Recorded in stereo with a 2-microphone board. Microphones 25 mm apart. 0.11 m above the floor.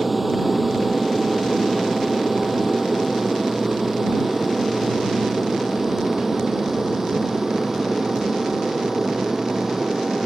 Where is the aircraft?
5° right (ahead or behind); by 10.3 s 20° right (ahead or behind).